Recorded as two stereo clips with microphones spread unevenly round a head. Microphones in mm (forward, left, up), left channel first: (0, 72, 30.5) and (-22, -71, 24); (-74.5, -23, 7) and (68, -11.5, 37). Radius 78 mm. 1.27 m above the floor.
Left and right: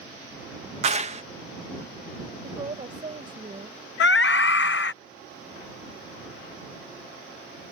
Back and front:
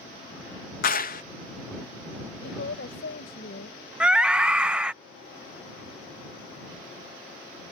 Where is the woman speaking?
160° right.